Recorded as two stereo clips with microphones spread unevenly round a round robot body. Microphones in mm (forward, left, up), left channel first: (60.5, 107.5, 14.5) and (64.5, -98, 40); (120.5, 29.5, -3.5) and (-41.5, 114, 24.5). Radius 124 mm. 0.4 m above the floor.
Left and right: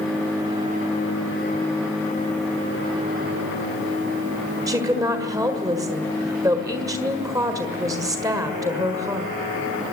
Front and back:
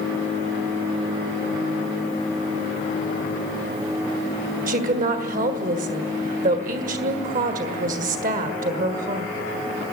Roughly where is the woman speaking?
Behind.